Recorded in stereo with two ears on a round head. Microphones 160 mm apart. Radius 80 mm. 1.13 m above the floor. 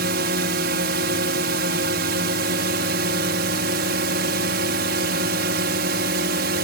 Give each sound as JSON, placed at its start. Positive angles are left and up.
{"t": 0.0, "sound": "a drone", "side_deg": -60}